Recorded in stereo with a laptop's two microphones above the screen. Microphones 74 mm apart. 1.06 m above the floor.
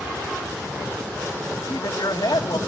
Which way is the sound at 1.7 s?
75° left (ahead or behind).